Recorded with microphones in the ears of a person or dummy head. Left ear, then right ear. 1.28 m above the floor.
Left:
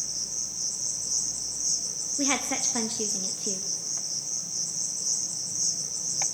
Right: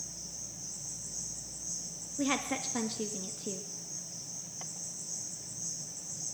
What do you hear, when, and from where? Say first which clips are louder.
0.0 s an insect: left 11 dB; 55° left (ahead or behind), 1.0 m
2.2 s a woman speaking: left 5 dB; 5° left (ahead or behind), 0.6 m